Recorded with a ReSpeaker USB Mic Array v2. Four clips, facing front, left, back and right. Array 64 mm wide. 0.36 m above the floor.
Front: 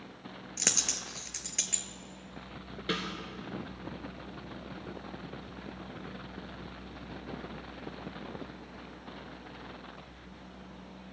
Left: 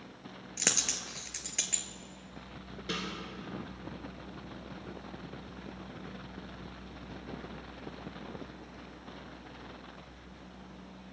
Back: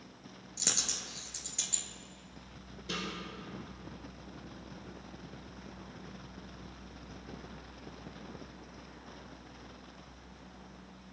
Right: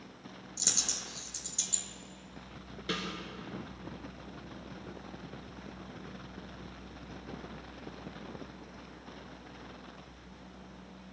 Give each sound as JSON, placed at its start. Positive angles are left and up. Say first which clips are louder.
{"t": 0.6, "sound": "a dropped coin", "louder": "left 6 dB, front 3 dB", "azimuth_deg": 60, "distance_m": 1.2}
{"t": 2.9, "sound": "a snare drum", "louder": "right 1 dB, front 5 dB", "azimuth_deg": -15, "distance_m": 2.0}